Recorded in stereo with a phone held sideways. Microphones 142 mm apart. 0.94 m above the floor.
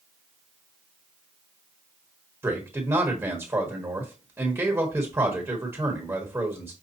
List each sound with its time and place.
2.4 s a man speaking: 15° right (ahead or behind), 1.4 m